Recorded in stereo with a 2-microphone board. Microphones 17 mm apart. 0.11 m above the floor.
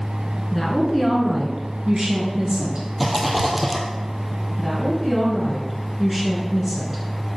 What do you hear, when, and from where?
0.5 s a woman speaking: 15° left (ahead or behind), 1.2 m; by 2.9 s 50° right (ahead or behind), 1.8 m
3.0 s a rattle: 5° right (ahead or behind), 0.9 m
4.6 s a woman speaking: 15° right (ahead or behind), 1.6 m